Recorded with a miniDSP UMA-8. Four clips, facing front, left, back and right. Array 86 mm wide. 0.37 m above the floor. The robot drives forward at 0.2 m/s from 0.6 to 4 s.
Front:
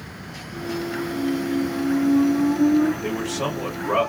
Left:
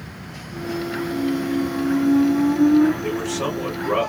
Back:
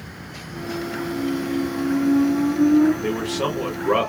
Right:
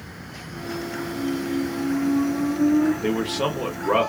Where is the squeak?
105° left, 1.0 m; by 2.9 s 120° left, 1.1 m.